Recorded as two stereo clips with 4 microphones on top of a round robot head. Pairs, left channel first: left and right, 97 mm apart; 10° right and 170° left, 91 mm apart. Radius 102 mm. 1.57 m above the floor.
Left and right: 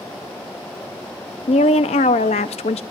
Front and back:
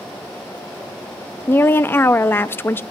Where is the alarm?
No alarm in this recording.